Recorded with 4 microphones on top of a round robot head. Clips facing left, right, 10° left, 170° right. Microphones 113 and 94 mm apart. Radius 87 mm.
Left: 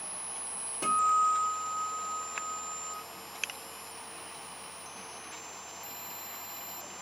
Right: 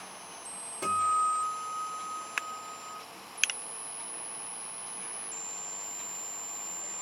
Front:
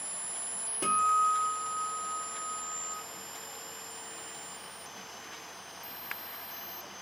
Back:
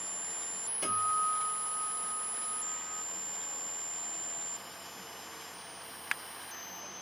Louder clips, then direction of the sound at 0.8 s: Left 1 dB, front 6 dB; 5° left.